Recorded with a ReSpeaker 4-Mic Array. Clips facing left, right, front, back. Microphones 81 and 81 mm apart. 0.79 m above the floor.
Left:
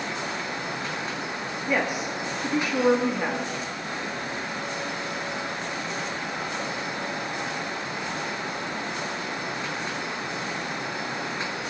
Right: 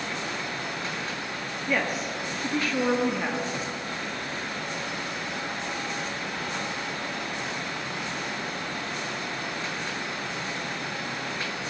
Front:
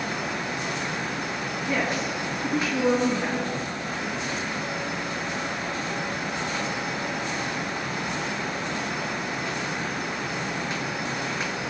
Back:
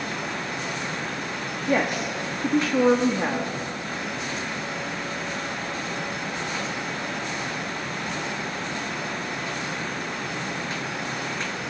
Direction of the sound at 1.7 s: 170° left.